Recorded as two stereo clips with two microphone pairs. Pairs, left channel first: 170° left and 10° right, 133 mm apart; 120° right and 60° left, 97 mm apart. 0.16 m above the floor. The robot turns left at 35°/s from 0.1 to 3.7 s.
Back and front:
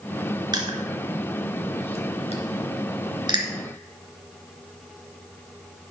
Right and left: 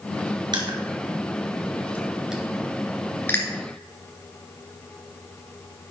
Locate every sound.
0.5 s crushing: 40° left, 2.5 m; by 3.5 s 60° right, 2.5 m